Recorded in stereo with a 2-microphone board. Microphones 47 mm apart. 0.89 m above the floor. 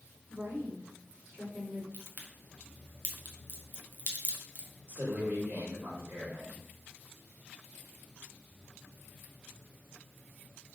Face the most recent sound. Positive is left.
turn(degrees=-45)  # may be behind; listen again after turning